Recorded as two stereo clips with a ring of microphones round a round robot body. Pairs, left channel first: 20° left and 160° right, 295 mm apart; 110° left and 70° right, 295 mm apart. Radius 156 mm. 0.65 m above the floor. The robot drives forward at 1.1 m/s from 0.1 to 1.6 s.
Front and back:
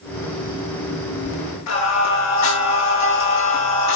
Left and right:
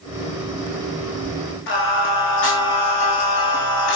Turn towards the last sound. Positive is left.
turn(degrees=60)